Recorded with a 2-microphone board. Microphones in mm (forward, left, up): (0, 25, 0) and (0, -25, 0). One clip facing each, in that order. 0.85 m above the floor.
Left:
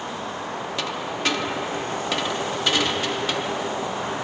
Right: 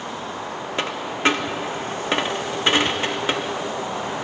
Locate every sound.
0.8 s a dropped coin: 35° right (ahead or behind), 0.5 m